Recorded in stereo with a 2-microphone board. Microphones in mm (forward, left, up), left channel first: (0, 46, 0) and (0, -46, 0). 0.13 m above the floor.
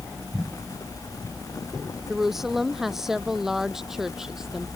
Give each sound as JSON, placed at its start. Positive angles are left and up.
{"t": 2.1, "sound": "a woman speaking", "side_deg": -5}